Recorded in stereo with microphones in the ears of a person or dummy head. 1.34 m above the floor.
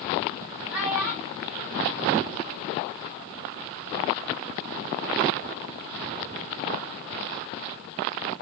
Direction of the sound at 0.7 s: 5° right (ahead or behind).